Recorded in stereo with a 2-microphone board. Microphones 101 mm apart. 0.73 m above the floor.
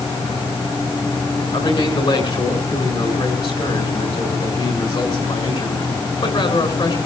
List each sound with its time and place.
1.5 s a man speaking: 55° left (ahead or behind), 7 m